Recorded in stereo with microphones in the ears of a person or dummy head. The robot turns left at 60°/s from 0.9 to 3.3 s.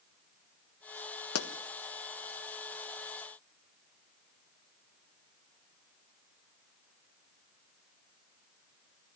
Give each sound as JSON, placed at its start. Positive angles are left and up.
{"t": 1.4, "sound": "a pop", "side_deg": 80, "distance_m": 1.4}